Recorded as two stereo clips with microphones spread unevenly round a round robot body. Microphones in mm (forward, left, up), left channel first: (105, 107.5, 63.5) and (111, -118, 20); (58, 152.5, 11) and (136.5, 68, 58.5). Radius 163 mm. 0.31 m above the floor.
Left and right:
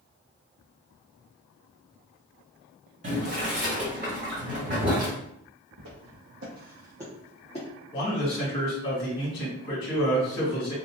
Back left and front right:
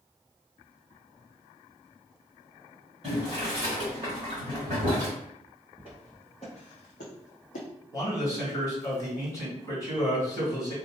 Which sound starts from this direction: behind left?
A man speaking, at 7.9 s.